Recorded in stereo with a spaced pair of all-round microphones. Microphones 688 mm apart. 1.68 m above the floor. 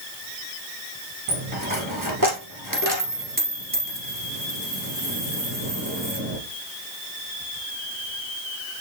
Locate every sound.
1.3 s a dropped coin: 30° right (ahead or behind), 1.9 m